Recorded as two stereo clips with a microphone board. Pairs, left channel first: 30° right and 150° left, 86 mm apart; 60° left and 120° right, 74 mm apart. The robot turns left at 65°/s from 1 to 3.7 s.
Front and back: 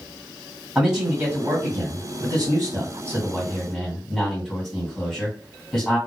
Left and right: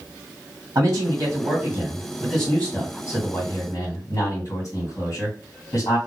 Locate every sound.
0.8 s a man speaking: 125° right, 2 m; by 6.0 s 60° left, 2 m